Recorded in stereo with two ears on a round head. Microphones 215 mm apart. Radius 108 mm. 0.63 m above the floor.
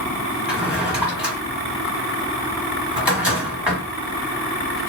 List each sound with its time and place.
0.5 s a drawer: 5° right (ahead or behind), 1.1 m